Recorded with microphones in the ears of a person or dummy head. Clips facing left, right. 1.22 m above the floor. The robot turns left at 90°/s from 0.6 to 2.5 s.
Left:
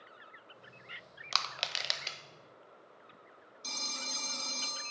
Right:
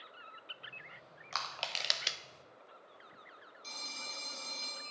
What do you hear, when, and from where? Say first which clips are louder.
1.3 s crushing: left 1 dB; 55° left (ahead or behind), 0.7 m; by 2.2 s 25° right (ahead or behind), 0.7 m
3.6 s a phone ringing: left 5 dB; 75° left (ahead or behind), 1.3 m